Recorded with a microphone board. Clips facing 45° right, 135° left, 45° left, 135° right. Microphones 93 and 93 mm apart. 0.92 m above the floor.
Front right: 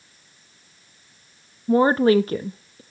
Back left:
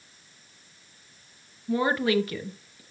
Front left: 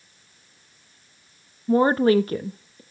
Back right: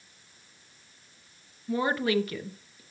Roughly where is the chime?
I don't hear a chime.